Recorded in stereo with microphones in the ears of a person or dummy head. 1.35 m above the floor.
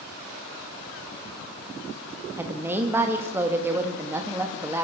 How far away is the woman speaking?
About 1.9 m.